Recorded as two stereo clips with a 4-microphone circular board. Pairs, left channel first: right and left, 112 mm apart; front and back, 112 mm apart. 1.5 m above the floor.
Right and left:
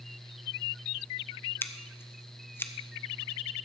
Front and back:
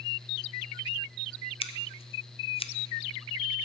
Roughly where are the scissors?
Ahead right.